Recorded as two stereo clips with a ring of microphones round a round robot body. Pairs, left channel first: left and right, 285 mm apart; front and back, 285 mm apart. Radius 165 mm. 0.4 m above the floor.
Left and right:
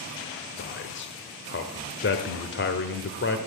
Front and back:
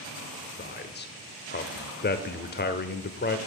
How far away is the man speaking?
About 1.3 m.